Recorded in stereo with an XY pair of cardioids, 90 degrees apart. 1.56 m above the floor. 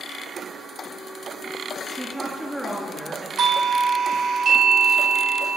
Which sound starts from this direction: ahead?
A woman speaking, at 1.9 s.